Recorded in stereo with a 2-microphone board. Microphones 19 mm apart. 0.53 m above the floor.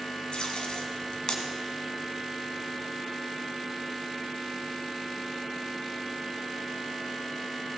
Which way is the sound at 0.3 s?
50° left (ahead or behind).